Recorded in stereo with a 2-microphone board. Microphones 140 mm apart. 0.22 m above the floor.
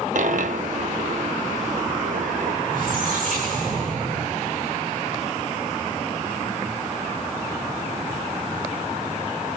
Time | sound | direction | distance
0.1 | a dropped coin | 70° right (ahead or behind) | 0.7 m
2.7 | a squeak | 75° right (ahead or behind) | 9.5 m